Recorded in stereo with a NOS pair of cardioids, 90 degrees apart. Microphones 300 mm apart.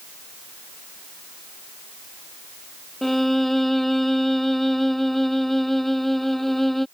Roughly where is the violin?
Ahead.